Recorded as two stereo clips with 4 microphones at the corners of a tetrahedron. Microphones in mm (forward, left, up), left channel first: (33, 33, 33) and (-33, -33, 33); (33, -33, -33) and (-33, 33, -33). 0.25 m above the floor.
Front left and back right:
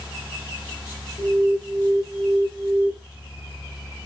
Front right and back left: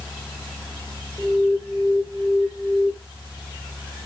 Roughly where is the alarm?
Ahead left.